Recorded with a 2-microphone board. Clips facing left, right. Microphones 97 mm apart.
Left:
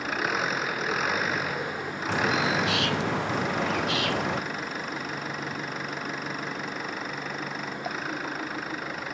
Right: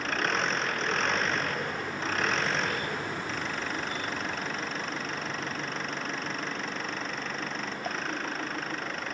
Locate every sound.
0.0 s an engine running: 5° left (ahead or behind)
2.1 s a bird: 85° left